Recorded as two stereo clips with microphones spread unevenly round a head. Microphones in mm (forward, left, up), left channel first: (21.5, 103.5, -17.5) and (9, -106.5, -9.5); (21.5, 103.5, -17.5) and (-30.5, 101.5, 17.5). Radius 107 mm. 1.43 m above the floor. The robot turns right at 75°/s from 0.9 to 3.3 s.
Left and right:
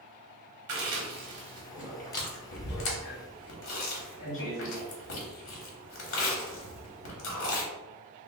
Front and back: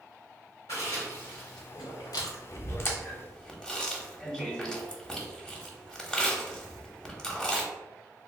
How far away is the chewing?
About 1.2 m.